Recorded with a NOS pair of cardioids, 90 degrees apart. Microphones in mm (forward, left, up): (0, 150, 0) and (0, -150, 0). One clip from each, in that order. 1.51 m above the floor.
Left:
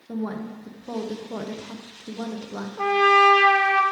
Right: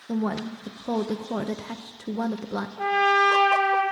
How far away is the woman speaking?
About 0.6 m.